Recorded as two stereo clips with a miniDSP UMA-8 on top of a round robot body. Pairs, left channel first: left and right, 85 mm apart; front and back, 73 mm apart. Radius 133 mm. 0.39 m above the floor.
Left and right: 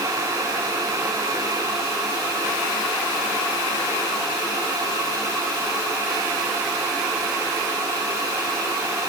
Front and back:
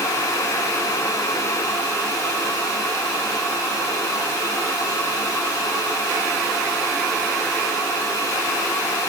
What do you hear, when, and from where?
Only background noise.